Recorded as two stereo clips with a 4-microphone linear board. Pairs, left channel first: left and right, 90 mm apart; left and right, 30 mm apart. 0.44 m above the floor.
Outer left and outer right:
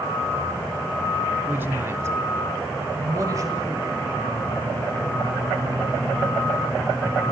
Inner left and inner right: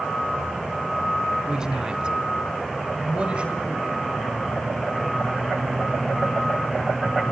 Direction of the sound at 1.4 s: 20° right (ahead or behind).